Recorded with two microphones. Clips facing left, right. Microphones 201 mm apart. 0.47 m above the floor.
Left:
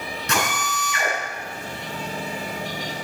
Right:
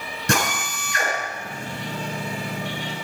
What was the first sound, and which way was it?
A drill, 50° right (ahead or behind).